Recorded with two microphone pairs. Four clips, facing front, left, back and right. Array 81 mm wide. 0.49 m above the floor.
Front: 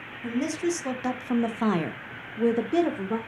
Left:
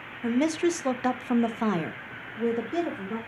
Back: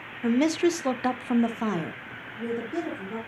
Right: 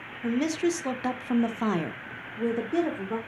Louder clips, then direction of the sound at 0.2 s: Left 2 dB, back 5 dB; 160° left.